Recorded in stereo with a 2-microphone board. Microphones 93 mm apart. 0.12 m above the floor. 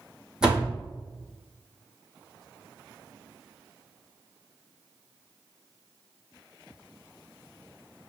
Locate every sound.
0.4 s a door slam: 10° right (ahead or behind), 3.5 m